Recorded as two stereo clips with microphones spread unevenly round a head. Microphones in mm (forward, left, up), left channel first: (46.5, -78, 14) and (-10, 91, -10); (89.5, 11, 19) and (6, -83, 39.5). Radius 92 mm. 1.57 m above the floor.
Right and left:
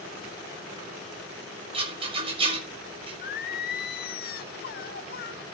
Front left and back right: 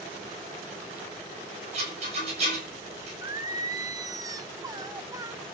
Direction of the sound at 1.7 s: 175° left.